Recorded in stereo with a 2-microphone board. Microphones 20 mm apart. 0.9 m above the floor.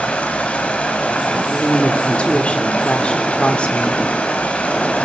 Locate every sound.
0.0 s running water: 75° left (ahead or behind), 3.5 m
1.3 s a woman speaking: 60° left (ahead or behind), 3 m